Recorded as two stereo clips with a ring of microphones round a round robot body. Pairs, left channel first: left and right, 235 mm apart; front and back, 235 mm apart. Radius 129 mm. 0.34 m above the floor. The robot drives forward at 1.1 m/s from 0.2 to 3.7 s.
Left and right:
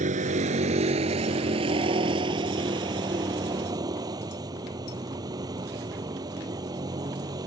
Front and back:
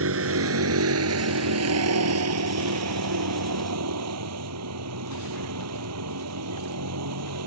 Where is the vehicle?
155° right; by 7.5 s 165° right.